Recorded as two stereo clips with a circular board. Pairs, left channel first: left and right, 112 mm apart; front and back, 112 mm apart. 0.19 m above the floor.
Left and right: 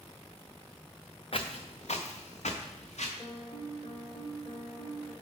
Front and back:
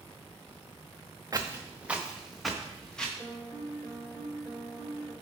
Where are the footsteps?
120° left, 0.8 m; by 3.1 s 80° left, 1.7 m.